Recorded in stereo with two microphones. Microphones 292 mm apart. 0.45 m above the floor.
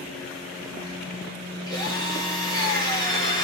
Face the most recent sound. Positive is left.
turn(degrees=10)  # may be behind; listen again after turning